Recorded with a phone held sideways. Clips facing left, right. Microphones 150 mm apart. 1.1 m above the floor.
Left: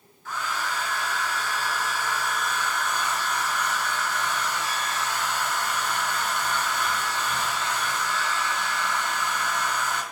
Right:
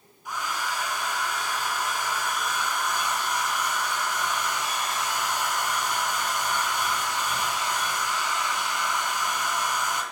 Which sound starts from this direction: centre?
A hair dryer, at 0.2 s.